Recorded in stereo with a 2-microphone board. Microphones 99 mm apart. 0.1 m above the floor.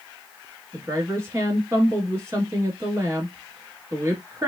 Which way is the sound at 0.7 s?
30° right (ahead or behind).